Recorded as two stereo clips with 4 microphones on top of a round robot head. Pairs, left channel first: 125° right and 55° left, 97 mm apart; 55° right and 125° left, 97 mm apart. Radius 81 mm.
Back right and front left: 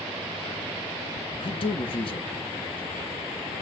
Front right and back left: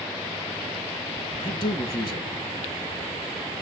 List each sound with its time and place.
1.4 s a man speaking: 90° right, 1.8 m